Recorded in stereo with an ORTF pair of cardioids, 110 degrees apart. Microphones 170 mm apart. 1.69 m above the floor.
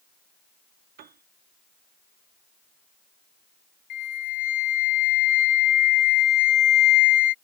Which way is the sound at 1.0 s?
65° right.